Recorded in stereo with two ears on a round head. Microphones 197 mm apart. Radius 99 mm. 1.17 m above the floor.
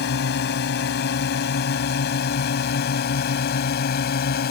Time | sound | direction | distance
0.0 | a drone | 50° left (ahead or behind) | ?